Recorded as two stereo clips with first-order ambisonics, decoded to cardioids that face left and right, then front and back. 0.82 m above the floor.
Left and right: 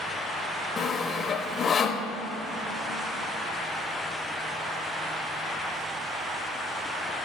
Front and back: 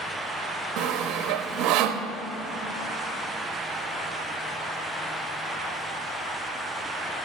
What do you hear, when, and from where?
0.8 s sawing: 155° left, 0.6 m